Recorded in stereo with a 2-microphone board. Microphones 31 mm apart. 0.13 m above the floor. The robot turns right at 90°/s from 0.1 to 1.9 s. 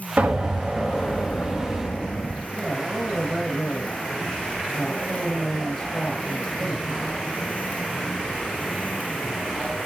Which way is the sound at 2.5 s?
25° left (ahead or behind).